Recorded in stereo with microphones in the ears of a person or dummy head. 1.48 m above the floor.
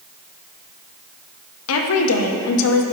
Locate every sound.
1.7 s a woman speaking: 75° left (ahead or behind), 0.8 m